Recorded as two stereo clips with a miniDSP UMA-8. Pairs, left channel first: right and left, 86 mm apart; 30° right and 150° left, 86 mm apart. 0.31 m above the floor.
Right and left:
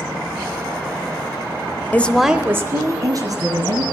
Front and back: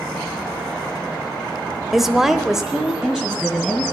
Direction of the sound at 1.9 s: 125° right.